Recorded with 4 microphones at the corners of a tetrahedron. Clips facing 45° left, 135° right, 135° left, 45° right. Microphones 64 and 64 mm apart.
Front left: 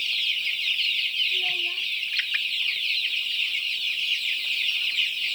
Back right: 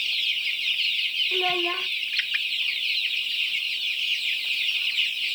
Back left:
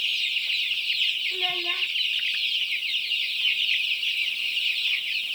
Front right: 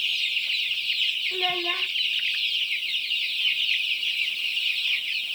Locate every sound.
1.3 s a child speaking: 115° right